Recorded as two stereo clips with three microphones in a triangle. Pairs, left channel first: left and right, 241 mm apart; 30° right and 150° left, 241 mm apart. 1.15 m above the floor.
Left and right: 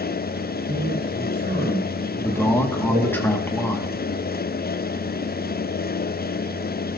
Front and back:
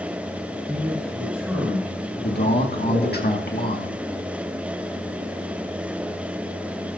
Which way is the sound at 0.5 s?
125° right.